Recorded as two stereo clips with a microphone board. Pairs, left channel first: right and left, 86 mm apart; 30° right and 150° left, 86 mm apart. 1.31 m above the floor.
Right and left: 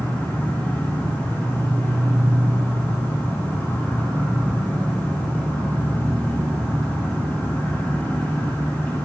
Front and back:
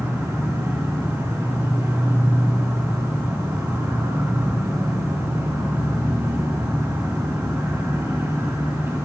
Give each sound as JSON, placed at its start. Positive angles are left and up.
{"t": 0.0, "sound": "an insect", "azimuth_deg": -155, "distance_m": 2.5}